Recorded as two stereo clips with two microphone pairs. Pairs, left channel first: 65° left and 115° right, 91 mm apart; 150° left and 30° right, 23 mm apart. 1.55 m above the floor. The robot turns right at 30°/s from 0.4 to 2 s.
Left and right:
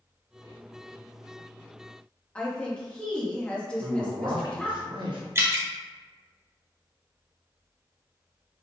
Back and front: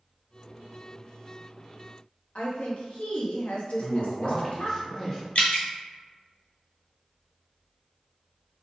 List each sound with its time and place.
2.4 s a woman speaking: 135° left, 0.7 m
3.8 s a man speaking: 140° right, 0.8 m
5.3 s dripping: straight behind, 0.5 m